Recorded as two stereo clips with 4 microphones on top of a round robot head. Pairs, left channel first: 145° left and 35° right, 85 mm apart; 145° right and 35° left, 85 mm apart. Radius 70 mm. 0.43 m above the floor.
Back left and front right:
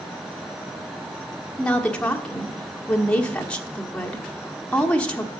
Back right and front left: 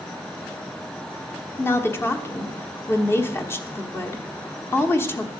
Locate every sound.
1.6 s a woman speaking: 150° right, 1.3 m